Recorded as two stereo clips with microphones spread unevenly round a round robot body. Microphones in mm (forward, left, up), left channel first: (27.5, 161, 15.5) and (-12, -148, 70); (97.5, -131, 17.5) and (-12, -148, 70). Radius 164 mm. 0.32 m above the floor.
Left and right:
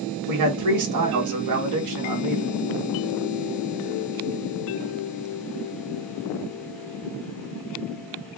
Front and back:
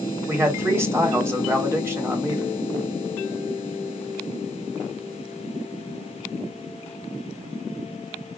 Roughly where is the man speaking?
Right.